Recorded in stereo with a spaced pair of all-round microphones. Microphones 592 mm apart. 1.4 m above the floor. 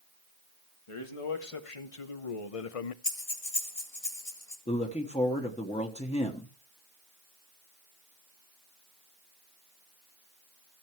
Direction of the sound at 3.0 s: 70° left (ahead or behind).